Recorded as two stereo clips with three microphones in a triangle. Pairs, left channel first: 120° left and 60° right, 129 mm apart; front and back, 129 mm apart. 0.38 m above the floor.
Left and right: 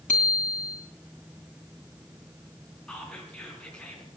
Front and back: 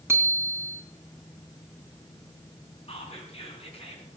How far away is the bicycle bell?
About 2.5 m.